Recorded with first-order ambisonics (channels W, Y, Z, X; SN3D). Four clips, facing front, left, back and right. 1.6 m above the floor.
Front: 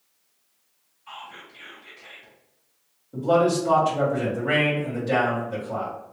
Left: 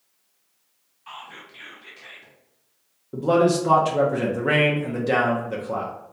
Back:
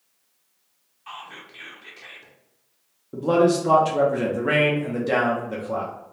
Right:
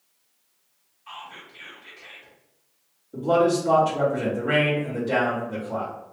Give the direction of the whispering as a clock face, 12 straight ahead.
7 o'clock.